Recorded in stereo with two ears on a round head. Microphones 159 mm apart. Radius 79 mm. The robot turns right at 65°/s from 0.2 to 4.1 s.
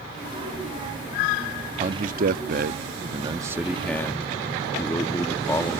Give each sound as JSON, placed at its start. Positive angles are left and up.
{"t": 1.8, "sound": "a man speaking", "azimuth_deg": -130}